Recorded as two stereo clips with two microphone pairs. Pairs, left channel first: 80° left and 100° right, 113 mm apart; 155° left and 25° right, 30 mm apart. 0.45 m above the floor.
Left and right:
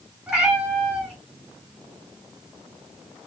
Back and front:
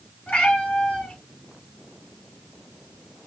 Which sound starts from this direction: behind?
A cat meowing, at 0.3 s.